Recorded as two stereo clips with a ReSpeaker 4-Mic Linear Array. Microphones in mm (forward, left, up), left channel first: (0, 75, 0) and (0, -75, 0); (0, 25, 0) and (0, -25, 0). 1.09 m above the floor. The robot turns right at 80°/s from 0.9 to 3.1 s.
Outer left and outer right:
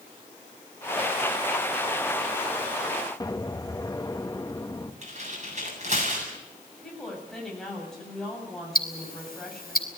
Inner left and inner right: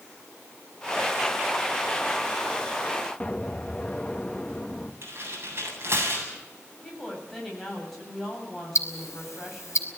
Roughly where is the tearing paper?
Right.